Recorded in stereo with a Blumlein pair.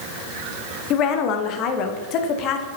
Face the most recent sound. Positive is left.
turn(degrees=35)